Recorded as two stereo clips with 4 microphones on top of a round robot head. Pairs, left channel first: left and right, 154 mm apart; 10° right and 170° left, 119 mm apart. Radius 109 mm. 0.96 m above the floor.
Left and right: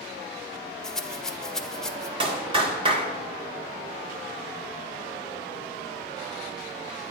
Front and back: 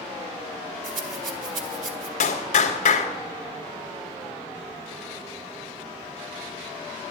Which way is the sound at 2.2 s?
30° right.